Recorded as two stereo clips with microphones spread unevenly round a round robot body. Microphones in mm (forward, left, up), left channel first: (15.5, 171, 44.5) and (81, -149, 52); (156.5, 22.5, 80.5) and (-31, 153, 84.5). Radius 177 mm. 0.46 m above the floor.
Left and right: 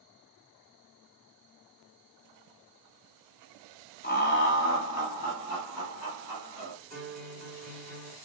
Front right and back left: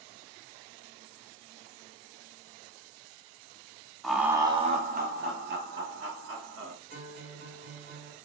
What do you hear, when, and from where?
4.0 s laughter: 50° left, 1.0 m; by 6.8 s 140° left, 1.8 m
6.9 s a guitar: 165° right, 2 m